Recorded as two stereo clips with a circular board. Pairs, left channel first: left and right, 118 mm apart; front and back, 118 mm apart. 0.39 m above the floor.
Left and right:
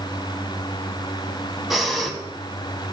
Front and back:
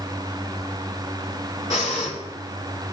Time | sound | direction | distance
1.7 | breathing | straight ahead | 1.4 m